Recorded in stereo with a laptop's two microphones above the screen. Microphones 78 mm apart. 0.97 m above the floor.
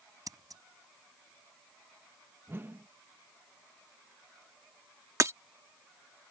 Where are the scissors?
55° right (ahead or behind).